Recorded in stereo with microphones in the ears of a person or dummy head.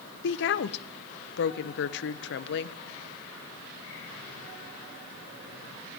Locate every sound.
0.2 s a woman speaking: 55° left (ahead or behind), 0.6 m